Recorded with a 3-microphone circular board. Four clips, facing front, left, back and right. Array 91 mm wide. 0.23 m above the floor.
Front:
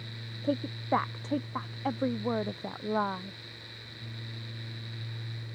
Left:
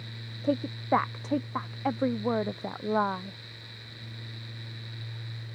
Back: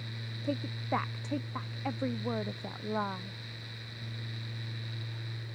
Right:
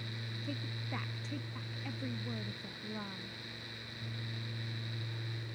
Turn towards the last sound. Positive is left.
turn(degrees=75)